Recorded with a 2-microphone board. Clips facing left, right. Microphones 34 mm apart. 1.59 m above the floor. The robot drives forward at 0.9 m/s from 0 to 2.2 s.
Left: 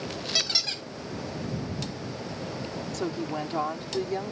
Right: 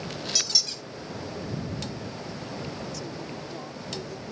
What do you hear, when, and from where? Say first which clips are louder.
0.3 s a squeak: left 3 dB; 30° left (ahead or behind); by 0.8 s 35° left (ahead or behind)
2.9 s a woman speaking: left 6 dB; 55° left (ahead or behind)